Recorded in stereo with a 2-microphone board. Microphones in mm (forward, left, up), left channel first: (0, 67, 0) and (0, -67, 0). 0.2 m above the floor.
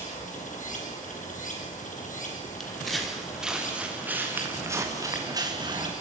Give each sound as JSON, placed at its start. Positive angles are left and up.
{"t": 0.0, "sound": "running water", "side_deg": 75, "distance_m": 5.5}
{"t": 2.6, "sound": "footsteps", "side_deg": 5, "distance_m": 5.5}